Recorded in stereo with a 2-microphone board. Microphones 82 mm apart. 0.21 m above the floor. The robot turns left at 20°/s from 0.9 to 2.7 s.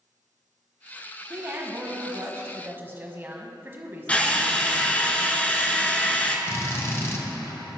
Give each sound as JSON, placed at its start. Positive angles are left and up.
{"t": 1.3, "sound": "a woman speaking", "side_deg": -30, "distance_m": 1.3}
{"t": 4.1, "sound": "a drill", "side_deg": 20, "distance_m": 0.9}
{"t": 6.5, "sound": "a drill", "side_deg": 35, "distance_m": 1.1}